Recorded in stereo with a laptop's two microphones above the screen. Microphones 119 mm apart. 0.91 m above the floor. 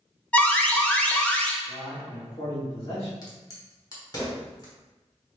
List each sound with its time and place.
0.3 s an alarm: 10° left (ahead or behind), 0.5 m
1.6 s a man speaking: 55° left (ahead or behind), 1.5 m
3.2 s a crack: 35° left (ahead or behind), 1.1 m